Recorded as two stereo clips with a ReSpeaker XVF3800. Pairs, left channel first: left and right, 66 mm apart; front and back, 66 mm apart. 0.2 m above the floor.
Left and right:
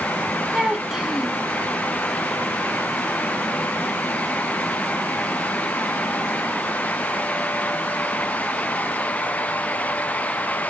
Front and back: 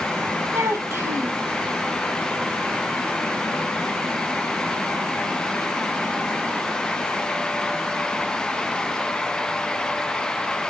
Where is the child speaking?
170° right, 0.7 m.